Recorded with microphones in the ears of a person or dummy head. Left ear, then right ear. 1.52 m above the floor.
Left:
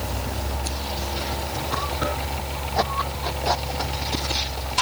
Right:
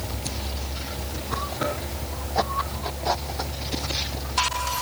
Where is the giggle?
I don't hear a giggle.